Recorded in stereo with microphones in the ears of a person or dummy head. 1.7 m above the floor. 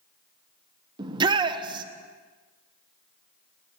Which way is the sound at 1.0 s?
30° right (ahead or behind).